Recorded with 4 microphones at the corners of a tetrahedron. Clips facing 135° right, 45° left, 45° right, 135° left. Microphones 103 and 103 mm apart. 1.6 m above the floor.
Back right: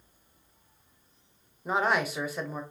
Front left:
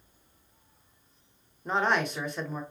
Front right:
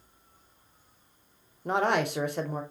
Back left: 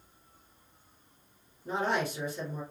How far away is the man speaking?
About 0.6 m.